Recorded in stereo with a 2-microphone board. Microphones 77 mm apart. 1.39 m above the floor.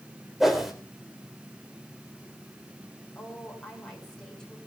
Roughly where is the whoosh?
Centre.